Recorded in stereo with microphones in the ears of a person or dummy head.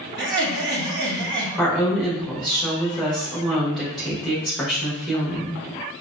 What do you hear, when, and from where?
0.2 s laughter: 50° right (ahead or behind), 0.8 m
1.6 s a woman speaking: centre (ahead or behind), 1.2 m